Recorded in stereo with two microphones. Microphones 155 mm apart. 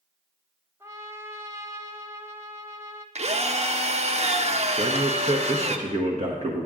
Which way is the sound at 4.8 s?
50° right (ahead or behind).